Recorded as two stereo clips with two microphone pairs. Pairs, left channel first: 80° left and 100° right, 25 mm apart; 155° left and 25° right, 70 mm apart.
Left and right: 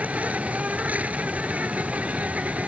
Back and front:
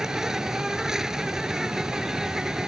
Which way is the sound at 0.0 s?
105° right.